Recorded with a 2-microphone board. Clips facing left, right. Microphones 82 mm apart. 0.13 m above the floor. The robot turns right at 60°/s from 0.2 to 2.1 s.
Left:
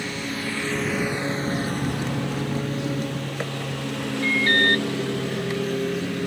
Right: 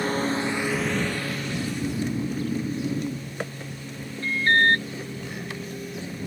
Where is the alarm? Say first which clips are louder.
Right 1 dB; 25° right (ahead or behind).